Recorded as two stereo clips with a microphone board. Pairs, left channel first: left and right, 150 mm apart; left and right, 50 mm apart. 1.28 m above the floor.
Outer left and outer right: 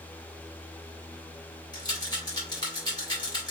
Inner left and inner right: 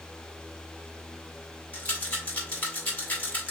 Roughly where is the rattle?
Left.